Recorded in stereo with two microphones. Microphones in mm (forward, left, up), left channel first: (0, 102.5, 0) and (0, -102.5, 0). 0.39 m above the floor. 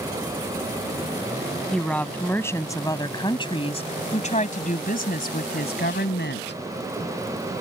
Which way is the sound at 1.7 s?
5° left (ahead or behind).